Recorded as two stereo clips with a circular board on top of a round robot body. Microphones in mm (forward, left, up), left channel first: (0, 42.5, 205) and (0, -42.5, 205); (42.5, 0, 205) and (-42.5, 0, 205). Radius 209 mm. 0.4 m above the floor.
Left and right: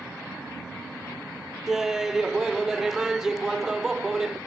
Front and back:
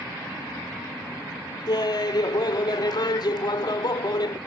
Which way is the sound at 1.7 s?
5° right.